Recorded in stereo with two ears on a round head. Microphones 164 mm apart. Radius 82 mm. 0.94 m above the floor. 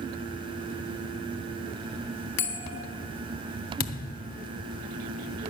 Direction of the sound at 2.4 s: 65° left (ahead or behind).